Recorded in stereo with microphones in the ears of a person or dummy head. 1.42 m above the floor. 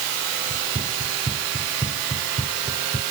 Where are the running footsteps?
30° right (ahead or behind); by 3.0 s 20° right (ahead or behind).